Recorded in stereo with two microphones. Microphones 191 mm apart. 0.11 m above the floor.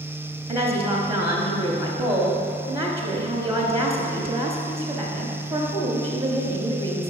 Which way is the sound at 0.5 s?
15° right (ahead or behind).